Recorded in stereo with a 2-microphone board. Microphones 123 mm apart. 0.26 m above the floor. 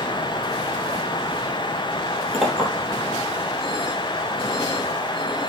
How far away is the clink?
About 4.5 m.